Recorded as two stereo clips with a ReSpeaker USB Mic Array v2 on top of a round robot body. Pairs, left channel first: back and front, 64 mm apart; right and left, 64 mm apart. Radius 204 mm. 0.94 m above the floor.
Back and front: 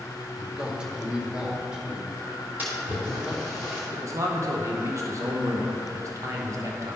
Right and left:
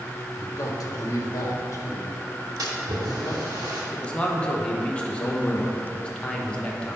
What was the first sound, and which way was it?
A man speaking, 75° right.